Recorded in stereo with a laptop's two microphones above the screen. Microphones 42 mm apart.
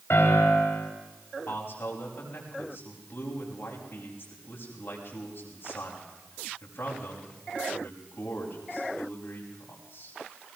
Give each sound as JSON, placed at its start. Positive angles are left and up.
{"t": 0.1, "sound": "a piano", "side_deg": 60, "distance_m": 4.5}
{"t": 1.5, "sound": "a man speaking", "side_deg": 50, "distance_m": 6.0}